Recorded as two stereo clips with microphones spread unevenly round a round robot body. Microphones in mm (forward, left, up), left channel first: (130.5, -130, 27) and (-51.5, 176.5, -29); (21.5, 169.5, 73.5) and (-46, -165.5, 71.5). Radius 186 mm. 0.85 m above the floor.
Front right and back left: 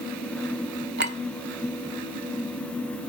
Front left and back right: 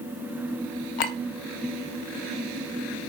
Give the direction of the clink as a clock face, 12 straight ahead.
10 o'clock.